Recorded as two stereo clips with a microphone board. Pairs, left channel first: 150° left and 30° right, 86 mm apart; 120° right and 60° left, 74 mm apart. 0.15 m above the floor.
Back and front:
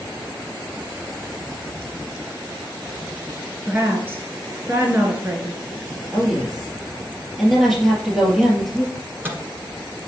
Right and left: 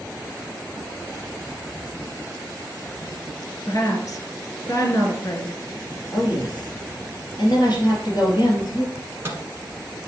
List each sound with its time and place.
3.7 s a woman speaking: 90° right, 1.9 m
6.1 s a woman speaking: 120° right, 2.5 m
8.9 s a microwave: 20° left, 1.4 m